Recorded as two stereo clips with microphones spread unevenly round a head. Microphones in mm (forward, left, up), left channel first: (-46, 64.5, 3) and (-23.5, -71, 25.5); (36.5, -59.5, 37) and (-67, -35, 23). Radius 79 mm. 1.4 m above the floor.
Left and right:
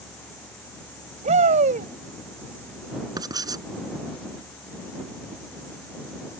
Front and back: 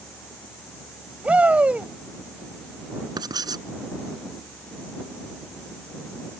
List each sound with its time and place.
1.2 s a shout: 115° right
3.2 s writing: 140° right